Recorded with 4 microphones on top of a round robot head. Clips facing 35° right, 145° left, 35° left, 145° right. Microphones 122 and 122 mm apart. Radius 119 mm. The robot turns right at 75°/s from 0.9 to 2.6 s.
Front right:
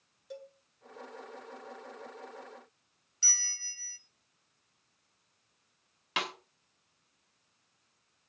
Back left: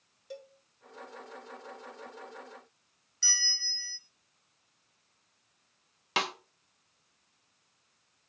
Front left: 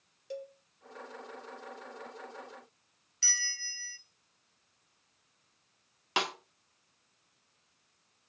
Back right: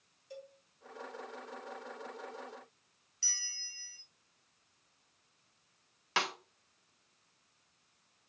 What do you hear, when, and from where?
0.3 s a cowbell: 55° left, 1.4 m
3.2 s a bell: 50° left, 1.0 m
6.2 s a snare drum: 105° left, 1.4 m